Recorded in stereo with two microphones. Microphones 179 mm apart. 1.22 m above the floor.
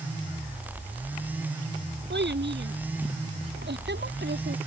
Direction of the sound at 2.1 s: 80° right.